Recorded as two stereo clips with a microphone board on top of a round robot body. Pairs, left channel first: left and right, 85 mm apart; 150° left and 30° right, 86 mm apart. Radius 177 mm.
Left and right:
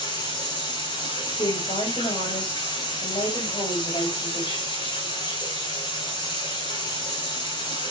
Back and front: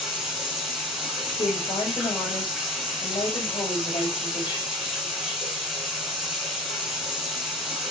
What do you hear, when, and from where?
0.0 s running water: 55° left, 5.5 m
1.3 s a woman speaking: 115° left, 4.5 m